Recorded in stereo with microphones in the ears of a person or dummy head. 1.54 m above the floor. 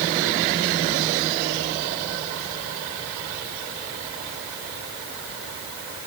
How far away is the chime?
I don't hear a chime.